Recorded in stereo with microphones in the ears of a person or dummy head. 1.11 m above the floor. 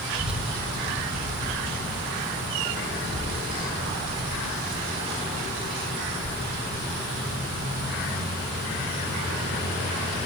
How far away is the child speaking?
About 0.8 m.